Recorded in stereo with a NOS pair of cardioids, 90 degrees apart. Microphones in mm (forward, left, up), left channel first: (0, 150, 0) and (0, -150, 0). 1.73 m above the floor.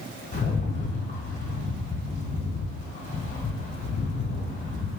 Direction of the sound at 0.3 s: 25° left.